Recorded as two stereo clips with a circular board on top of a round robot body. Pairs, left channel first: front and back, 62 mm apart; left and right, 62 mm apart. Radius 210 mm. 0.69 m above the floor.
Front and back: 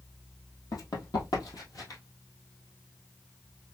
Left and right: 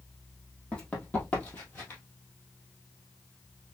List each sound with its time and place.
0.7 s running footsteps: 20° left, 2.5 m; by 2.0 s 35° left, 1.8 m